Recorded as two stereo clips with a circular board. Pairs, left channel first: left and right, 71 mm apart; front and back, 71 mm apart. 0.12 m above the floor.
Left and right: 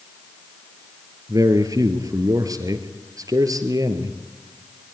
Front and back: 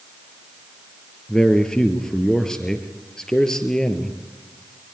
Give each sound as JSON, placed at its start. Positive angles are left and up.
{"t": 1.3, "sound": "a man speaking", "azimuth_deg": -80, "distance_m": 3.0}